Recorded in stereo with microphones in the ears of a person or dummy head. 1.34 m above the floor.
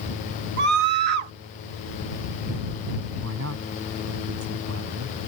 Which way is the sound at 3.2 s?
75° right (ahead or behind).